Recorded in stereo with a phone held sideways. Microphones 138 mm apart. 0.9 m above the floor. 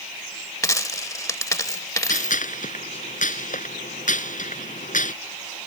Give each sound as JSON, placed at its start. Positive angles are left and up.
{"t": 0.6, "sound": "a dropped coin", "side_deg": 25}
{"t": 2.1, "sound": "a gunshot", "side_deg": 70}